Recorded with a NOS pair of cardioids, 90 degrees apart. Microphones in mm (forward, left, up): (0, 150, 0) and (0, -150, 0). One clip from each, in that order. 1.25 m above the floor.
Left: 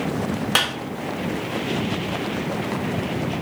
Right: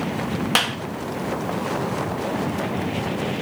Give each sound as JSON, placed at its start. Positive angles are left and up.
{"t": 0.6, "sound": "a clap", "azimuth_deg": -10, "distance_m": 1.4}